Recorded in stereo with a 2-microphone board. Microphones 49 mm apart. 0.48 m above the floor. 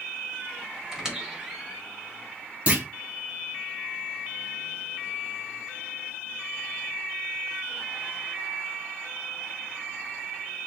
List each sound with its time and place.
0.9 s a squeak: 15° right (ahead or behind), 1.5 m
2.7 s a clunk: 30° right (ahead or behind), 1.3 m